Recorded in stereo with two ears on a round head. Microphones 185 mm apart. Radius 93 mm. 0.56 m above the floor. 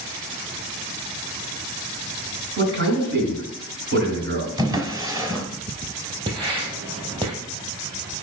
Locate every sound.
2.6 s a man speaking: 55° right (ahead or behind), 5.5 m
4.6 s a drawer: 20° right (ahead or behind), 1.4 m
6.3 s writing: 25° right (ahead or behind), 2.5 m